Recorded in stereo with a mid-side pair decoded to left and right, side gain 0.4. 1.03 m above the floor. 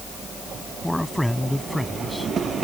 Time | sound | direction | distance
0.8 | a man speaking | 5° left | ?